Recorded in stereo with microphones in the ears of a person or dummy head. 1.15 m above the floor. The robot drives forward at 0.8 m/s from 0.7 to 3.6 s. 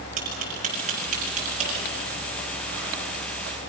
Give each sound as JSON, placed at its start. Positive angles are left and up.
{"t": 0.2, "sound": "tapping", "side_deg": -40, "distance_m": 5.5}